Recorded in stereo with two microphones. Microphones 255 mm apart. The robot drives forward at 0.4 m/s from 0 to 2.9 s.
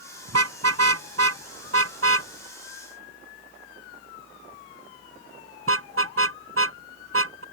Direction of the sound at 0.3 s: 75° right (ahead or behind).